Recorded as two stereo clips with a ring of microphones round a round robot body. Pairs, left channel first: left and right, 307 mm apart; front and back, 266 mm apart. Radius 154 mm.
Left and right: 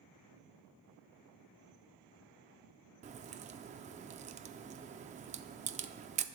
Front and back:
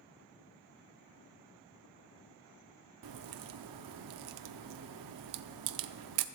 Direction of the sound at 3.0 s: 160° right.